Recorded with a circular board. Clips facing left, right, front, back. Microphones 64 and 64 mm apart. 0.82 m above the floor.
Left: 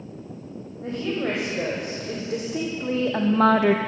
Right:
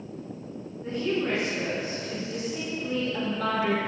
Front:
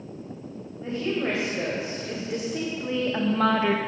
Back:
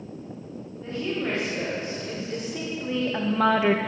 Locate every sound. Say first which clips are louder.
0.8 s a woman speaking: left 1 dB, front 2 dB; 75° left, 3.5 m; by 3.8 s 120° left, 0.5 m